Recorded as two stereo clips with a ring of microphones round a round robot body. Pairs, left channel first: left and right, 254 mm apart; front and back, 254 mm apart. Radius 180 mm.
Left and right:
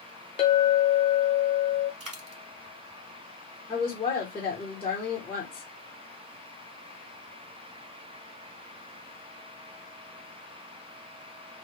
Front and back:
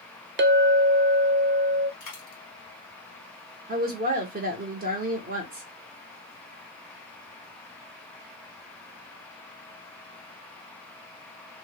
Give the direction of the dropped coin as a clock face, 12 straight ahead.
2 o'clock.